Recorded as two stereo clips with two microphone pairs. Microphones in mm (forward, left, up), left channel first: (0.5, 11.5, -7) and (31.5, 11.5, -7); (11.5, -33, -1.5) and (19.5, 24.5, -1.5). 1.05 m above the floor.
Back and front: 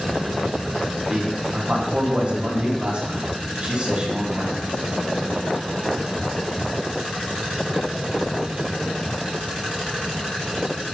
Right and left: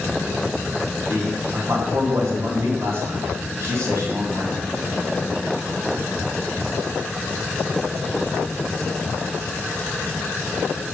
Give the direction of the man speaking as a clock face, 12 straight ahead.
11 o'clock.